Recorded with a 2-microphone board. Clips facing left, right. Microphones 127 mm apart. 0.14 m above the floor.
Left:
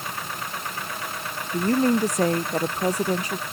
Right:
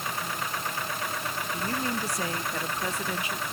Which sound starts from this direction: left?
A woman speaking, at 1.5 s.